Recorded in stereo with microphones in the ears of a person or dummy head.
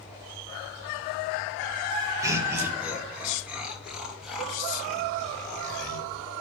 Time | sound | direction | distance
2.2 | laughter | 15° right (ahead or behind) | 2.0 m